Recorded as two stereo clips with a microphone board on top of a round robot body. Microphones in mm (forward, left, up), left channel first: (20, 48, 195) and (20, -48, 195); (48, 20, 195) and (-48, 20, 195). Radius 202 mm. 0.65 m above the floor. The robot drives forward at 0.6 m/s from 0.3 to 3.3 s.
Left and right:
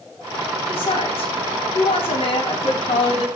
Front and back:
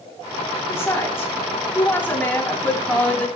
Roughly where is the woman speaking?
Ahead left.